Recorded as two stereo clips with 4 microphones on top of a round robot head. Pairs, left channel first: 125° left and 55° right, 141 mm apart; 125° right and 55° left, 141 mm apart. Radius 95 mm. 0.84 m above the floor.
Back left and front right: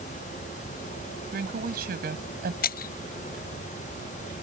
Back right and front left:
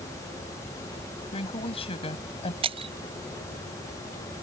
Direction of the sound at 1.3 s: 75° right.